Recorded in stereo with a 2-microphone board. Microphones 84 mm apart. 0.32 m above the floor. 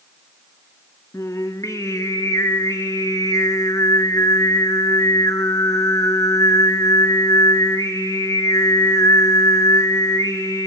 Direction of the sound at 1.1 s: 40° left (ahead or behind).